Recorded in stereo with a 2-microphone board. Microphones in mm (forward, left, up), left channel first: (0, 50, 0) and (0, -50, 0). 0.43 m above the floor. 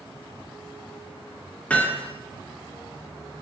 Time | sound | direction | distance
1.7 | hammering | 15° left (ahead or behind) | 4 m